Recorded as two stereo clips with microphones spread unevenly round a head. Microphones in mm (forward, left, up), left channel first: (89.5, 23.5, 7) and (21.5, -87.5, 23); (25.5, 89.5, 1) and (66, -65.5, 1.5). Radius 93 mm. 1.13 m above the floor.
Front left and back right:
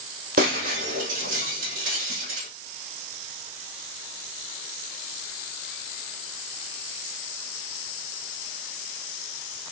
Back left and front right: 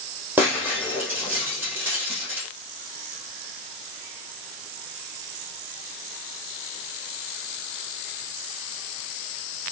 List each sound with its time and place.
0.4 s breaking glass: 155° right, 6.5 m